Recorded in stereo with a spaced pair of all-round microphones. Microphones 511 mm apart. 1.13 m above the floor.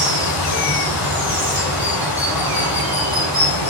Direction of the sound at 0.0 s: 40° left (ahead or behind).